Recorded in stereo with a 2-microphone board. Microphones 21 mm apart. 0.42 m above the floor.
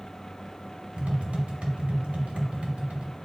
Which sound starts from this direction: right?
Tapping, at 1.0 s.